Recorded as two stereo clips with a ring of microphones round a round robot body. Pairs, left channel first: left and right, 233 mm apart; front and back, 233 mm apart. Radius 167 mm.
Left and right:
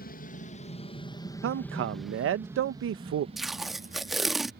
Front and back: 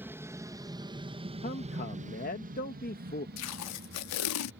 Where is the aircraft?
105° left; by 4.6 s 140° right.